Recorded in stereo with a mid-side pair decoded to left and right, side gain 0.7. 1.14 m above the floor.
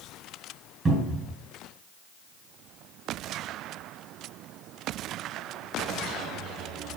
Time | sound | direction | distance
0.8 | a cupboard door | 20° right | 4 m